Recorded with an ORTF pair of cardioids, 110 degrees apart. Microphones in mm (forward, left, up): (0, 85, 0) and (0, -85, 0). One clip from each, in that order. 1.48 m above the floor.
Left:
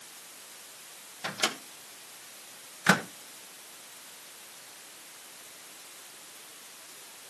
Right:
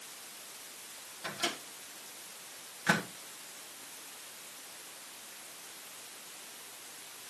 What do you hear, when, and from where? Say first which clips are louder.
1.2 s a microwave: left 5 dB; 45° left, 1.5 m